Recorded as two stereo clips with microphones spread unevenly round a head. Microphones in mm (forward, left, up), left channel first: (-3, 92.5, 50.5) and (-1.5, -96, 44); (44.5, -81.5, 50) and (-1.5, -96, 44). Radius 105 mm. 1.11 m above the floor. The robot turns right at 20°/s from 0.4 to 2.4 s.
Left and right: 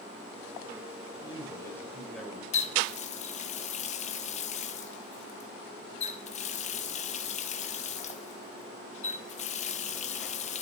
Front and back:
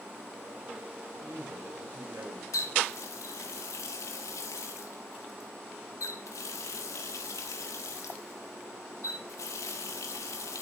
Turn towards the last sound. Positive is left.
turn(degrees=35)